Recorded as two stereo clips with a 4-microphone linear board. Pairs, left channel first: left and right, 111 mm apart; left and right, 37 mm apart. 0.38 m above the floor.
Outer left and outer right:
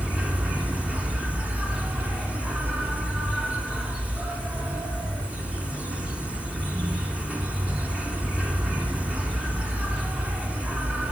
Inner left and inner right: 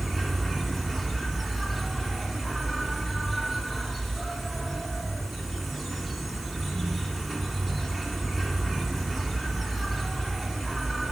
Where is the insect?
10° right (ahead or behind), 2 m.